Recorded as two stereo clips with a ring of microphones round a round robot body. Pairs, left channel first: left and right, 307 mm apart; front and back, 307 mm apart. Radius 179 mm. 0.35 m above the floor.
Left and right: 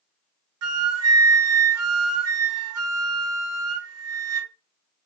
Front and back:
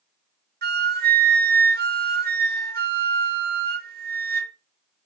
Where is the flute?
125° right, 1.0 m.